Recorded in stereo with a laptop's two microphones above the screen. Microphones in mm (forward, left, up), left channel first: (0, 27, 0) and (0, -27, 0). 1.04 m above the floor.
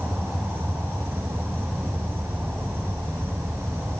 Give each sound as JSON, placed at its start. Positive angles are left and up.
{"t": 0.0, "sound": "an insect", "side_deg": -50, "distance_m": 4.0}